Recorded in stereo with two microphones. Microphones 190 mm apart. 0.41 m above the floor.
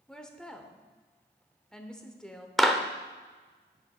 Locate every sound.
0.1 s a woman speaking: 5° left (ahead or behind), 0.9 m
2.6 s a clap: centre (ahead or behind), 0.7 m